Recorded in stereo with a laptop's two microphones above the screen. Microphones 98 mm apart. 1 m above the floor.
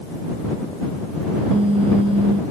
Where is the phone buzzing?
70° right (ahead or behind).